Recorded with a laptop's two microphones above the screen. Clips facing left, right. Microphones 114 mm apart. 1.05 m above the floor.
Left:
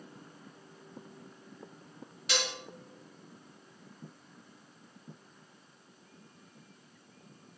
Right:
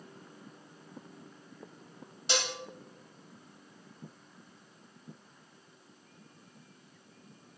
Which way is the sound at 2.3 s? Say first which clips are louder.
Right 1 dB; 30° right (ahead or behind).